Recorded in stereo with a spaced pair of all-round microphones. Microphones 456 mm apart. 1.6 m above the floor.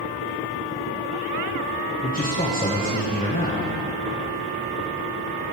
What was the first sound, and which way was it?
A man speaking, 20° left (ahead or behind).